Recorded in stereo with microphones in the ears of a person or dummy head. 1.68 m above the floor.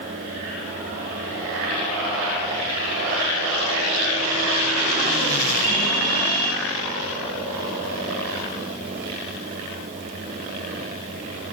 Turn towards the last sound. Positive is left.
turn(degrees=-35)  # may be behind; listen again after turning